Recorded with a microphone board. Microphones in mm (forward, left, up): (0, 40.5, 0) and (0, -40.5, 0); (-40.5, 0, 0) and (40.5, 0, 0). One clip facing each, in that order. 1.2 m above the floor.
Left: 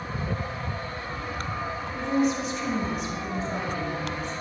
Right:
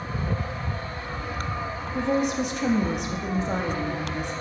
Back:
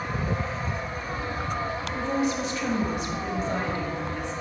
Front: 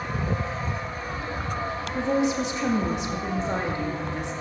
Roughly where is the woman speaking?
Right.